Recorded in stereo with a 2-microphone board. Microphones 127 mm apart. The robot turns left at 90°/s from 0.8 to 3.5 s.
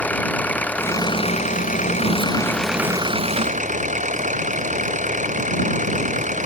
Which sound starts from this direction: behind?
An engine running, at 0.0 s.